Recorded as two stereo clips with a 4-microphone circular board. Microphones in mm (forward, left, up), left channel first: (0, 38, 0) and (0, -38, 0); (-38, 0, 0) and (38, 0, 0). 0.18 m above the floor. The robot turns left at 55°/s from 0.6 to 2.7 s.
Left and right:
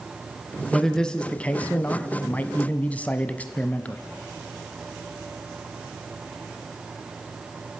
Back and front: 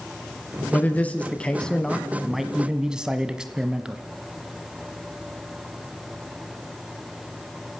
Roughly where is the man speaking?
Behind.